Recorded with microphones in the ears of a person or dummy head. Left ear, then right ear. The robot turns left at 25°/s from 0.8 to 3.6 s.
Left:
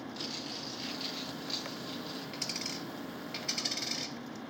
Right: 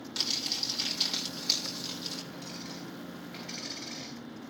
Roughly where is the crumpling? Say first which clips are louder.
Right 10 dB; ahead right.